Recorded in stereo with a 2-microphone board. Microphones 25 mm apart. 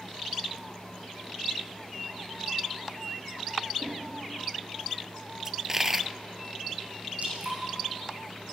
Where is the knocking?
60° right (ahead or behind), 7 m.